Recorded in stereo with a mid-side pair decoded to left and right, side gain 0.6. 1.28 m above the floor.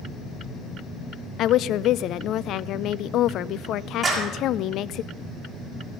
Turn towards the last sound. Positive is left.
turn(degrees=-10)